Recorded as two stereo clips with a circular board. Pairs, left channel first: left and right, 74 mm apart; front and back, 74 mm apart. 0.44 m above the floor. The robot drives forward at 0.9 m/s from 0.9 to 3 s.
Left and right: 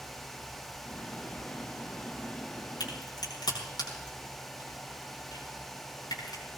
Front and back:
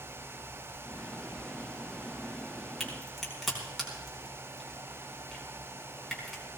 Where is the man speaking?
I don't hear a man speaking.